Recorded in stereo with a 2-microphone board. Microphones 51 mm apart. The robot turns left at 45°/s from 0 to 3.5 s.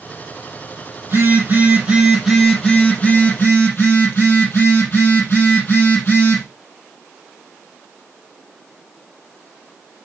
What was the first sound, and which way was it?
A phone buzzing, 120° right.